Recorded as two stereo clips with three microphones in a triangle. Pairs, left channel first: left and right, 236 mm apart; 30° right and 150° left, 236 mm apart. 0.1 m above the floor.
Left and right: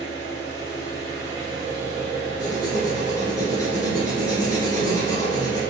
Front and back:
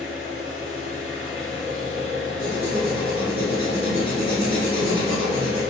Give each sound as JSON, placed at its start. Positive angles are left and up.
{"t": 0.0, "sound": "an engine running", "azimuth_deg": -125, "distance_m": 1.5}
{"t": 2.4, "sound": "writing", "azimuth_deg": 145, "distance_m": 1.1}